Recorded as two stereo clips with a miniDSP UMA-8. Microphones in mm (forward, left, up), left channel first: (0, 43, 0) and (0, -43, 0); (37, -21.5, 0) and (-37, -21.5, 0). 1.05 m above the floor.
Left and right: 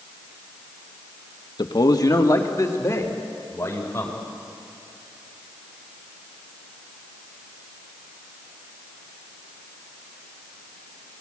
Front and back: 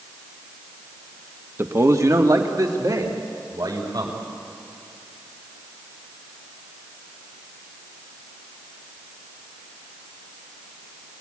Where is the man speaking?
125° left, 1.1 m; by 4.2 s 150° left, 4 m.